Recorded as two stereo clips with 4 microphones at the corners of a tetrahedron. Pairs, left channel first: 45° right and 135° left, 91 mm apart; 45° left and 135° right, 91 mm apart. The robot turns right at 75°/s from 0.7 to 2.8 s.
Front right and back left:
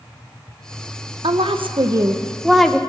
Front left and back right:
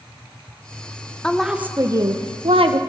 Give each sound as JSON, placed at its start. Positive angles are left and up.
{"t": 1.2, "sound": "a woman speaking", "azimuth_deg": 125, "distance_m": 0.8}